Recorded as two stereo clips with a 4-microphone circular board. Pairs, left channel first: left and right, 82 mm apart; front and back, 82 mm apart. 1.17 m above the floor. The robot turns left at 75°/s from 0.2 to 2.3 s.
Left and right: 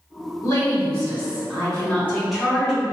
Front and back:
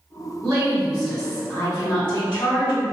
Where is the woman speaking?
140° left, 2.0 m; by 2.8 s straight ahead, 2.0 m.